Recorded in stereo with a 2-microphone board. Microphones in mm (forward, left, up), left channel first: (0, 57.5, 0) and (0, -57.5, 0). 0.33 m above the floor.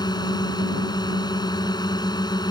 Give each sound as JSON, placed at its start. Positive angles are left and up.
{"t": 0.0, "sound": "a drone", "side_deg": 35}